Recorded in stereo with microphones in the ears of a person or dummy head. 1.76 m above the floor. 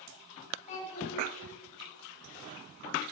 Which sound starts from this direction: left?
A child speaking, at 0.7 s.